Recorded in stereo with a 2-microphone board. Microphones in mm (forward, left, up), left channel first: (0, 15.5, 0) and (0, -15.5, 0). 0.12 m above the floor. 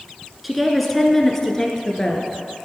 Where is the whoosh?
I don't hear a whoosh.